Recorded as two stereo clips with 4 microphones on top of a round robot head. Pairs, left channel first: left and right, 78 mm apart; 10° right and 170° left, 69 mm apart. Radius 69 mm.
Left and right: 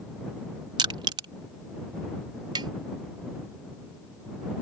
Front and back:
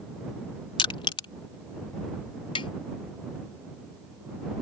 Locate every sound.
0.8 s crushing: 40° right
2.5 s tapping: 40° right